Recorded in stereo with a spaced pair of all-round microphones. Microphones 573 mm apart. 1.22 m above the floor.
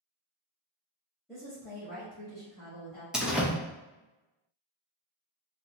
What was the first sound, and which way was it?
A woman speaking, centre (ahead or behind).